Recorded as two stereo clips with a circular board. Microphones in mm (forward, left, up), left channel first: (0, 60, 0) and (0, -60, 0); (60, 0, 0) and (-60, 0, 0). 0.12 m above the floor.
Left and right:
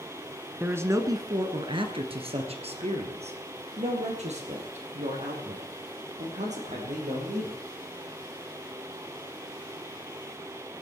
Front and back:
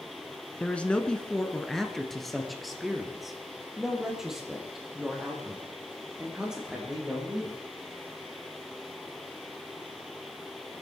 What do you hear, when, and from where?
0.6 s a man speaking: 55° right, 1.2 m; by 7.6 s 95° right, 5.5 m